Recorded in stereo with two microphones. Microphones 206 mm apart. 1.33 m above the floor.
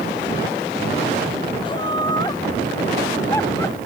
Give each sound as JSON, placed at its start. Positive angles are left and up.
{"t": 1.6, "sound": "laughter", "side_deg": 25}